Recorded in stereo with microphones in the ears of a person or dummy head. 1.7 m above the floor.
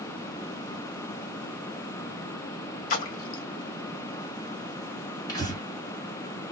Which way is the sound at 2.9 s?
45° left (ahead or behind).